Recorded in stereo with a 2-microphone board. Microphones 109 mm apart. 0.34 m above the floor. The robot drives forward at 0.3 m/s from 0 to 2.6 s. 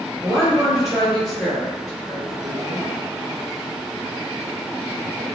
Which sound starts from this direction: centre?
A woman speaking, at 0.2 s.